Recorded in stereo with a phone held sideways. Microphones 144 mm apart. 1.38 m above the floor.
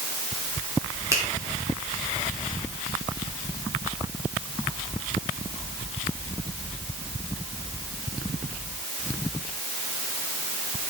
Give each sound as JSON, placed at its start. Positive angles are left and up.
{"t": 1.1, "sound": "a finger snap", "side_deg": -20, "distance_m": 2.5}